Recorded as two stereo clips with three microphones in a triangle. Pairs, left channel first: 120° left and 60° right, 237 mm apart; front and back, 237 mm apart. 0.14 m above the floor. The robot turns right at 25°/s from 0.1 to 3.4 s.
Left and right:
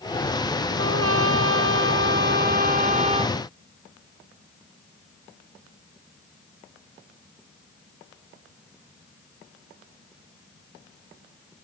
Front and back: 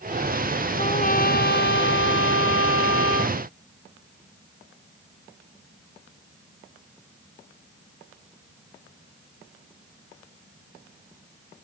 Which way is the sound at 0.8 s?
60° right.